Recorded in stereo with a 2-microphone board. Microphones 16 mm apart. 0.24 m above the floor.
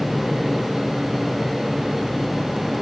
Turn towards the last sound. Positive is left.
No sound to turn to.